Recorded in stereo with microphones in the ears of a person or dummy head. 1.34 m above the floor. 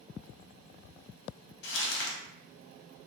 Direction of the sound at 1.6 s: 75° left (ahead or behind).